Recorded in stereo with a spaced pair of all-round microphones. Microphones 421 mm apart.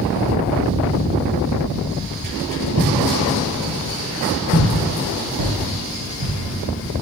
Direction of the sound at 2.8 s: 35° right (ahead or behind).